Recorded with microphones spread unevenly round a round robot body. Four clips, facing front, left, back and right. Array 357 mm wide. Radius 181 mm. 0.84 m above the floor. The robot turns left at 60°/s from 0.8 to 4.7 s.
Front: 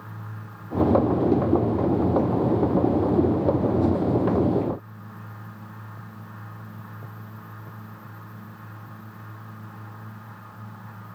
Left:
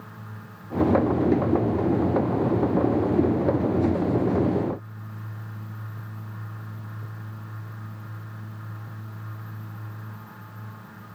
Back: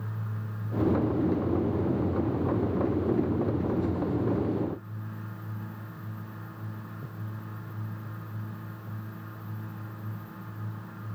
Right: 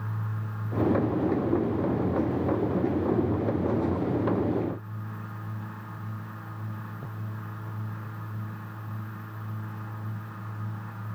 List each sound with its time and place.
Only background noise.